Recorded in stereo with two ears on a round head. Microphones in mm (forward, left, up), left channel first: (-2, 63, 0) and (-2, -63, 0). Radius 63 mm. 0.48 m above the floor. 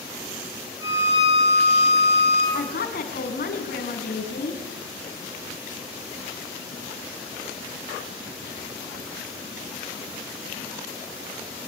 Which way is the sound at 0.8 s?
25° right (ahead or behind).